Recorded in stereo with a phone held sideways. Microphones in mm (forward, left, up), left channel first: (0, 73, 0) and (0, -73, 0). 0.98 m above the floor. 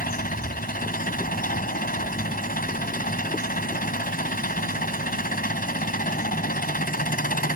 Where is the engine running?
85° left.